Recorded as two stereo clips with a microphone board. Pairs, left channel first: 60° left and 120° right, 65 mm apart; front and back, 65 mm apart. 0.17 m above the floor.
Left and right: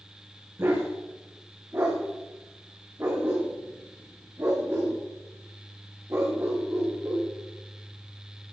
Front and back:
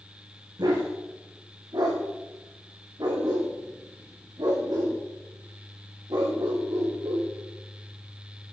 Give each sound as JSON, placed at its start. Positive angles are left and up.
{"t": 0.6, "sound": "a dog barking", "azimuth_deg": -170, "distance_m": 5.0}